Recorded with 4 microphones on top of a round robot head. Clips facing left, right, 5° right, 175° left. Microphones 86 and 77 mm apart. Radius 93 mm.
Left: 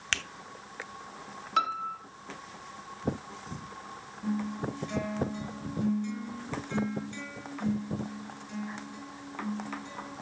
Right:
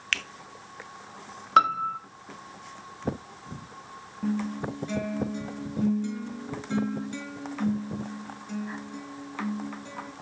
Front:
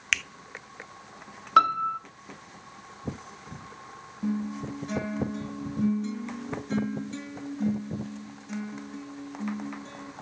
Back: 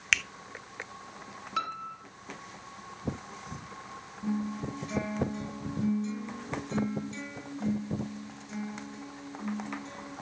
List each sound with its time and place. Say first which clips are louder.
0.1 s a finger snap: right 1 dB, back 1 dB; 85° left, 0.8 m
1.6 s a piano: right 8 dB, front 14 dB; 45° right, 0.9 m
4.2 s a guitar: right 3 dB, front 2 dB; 55° right, 5.5 m